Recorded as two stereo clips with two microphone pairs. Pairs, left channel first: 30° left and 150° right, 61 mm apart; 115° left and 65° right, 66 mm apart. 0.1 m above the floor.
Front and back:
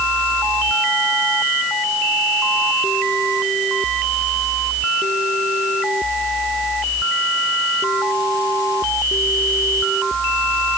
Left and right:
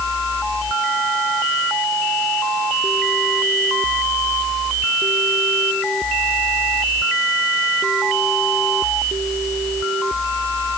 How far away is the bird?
I don't hear a bird.